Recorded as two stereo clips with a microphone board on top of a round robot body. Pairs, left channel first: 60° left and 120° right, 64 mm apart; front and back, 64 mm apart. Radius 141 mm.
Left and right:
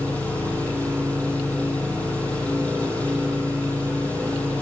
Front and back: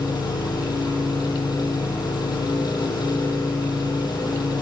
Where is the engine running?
10° right, 8.5 m.